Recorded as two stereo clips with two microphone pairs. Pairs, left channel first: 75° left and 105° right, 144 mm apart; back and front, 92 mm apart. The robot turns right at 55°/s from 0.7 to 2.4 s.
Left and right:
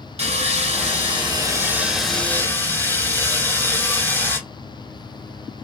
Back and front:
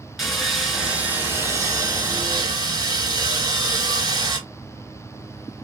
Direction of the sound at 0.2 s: 90° right.